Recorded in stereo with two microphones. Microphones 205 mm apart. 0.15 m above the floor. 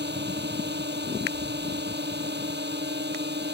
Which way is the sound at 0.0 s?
55° right (ahead or behind).